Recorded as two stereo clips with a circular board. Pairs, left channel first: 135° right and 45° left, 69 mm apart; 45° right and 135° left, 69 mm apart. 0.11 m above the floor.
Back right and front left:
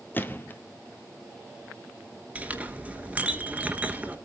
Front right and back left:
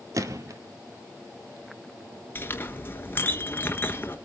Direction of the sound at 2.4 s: 15° right.